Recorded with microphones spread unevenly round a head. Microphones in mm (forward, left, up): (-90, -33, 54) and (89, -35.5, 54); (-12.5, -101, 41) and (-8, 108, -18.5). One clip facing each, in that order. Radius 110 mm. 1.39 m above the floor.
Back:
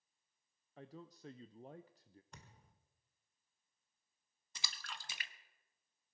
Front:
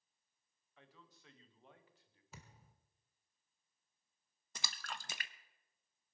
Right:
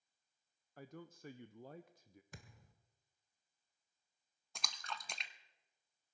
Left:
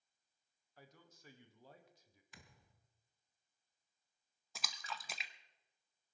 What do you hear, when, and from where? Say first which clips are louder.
0.8 s a man speaking: back 12 dB, right 11 dB; 130° right, 0.6 m
2.3 s a thud: front 7 dB, right 3 dB; 85° right, 1.7 m
4.5 s a splash: front 4 dB, even; 15° right, 0.7 m